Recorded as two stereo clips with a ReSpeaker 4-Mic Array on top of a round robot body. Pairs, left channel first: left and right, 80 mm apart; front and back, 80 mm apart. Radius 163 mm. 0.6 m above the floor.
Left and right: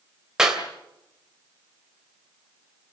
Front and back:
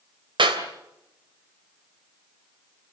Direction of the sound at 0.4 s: 175° right.